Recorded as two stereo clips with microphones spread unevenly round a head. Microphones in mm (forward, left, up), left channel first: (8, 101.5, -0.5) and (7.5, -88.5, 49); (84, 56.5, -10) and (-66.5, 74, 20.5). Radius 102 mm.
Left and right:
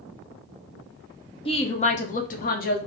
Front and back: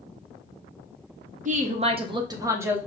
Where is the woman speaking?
135° left, 1.0 m; by 2.8 s 90° left, 1.1 m.